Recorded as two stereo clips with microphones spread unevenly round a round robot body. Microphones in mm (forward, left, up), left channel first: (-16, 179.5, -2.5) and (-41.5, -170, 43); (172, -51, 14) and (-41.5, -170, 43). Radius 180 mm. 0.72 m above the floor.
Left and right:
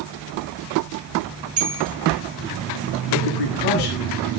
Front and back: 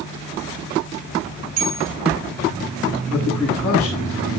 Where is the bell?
140° right, 3.5 m.